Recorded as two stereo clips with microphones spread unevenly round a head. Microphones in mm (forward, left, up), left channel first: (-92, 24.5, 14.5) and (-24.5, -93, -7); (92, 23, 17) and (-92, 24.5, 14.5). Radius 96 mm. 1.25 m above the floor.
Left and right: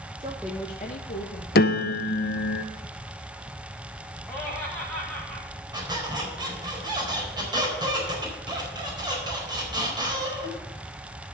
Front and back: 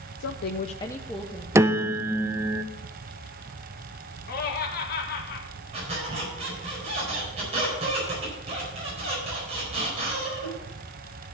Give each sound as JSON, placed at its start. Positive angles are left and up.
{"t": 0.2, "sound": "a woman speaking", "azimuth_deg": -5, "distance_m": 0.6}
{"t": 1.6, "sound": "a piano", "azimuth_deg": 105, "distance_m": 0.6}
{"t": 4.3, "sound": "laughter", "azimuth_deg": 35, "distance_m": 1.7}
{"t": 5.7, "sound": "a squeak", "azimuth_deg": -120, "distance_m": 4.5}